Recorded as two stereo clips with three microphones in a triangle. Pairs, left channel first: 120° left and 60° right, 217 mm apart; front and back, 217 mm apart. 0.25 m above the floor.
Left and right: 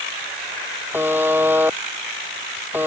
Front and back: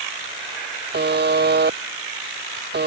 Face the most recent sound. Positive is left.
turn(degrees=-140)